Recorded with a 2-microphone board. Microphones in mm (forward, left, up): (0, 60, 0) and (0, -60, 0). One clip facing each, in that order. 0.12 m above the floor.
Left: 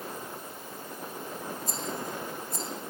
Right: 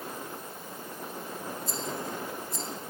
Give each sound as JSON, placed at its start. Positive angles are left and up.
{"t": 1.7, "sound": "a rattle", "side_deg": 45, "distance_m": 6.0}